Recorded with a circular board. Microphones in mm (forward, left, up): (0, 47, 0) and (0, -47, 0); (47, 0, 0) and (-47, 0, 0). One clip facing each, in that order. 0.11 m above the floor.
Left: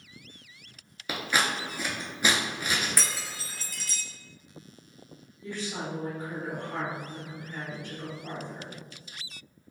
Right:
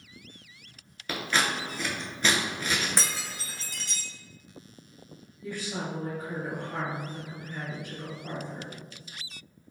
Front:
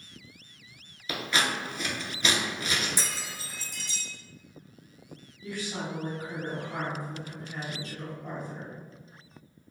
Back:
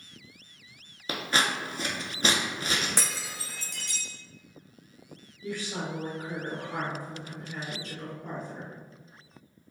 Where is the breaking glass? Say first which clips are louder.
Right 1 dB, back 1 dB; 155° right, 0.6 m.